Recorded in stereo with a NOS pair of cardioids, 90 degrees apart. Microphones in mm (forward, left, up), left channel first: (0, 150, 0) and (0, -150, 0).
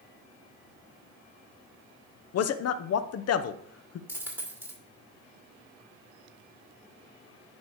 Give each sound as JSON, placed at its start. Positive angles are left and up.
{"t": 2.3, "sound": "a man speaking", "azimuth_deg": 55, "distance_m": 0.8}
{"t": 4.1, "sound": "a dropped coin", "azimuth_deg": -5, "distance_m": 2.5}